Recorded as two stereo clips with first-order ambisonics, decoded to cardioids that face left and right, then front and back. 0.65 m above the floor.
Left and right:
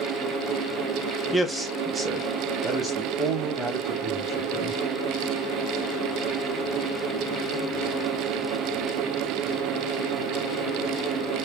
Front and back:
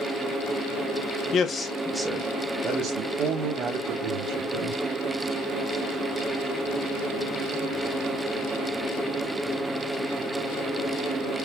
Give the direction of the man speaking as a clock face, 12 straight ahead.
12 o'clock.